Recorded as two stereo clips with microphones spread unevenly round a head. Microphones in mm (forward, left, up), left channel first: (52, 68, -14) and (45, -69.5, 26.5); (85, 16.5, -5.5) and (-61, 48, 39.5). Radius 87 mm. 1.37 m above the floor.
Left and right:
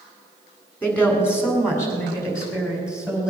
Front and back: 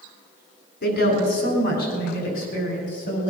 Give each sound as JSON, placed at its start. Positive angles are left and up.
{"t": 0.8, "sound": "a woman speaking", "azimuth_deg": 10, "distance_m": 4.5}